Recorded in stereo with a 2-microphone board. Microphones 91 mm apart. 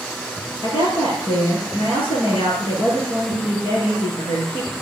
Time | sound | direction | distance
0.6 | a woman speaking | 80° left | 5 m